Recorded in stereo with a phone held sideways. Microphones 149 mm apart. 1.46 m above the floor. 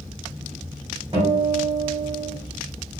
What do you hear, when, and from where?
1.1 s a guitar: 35° right (ahead or behind), 1.4 m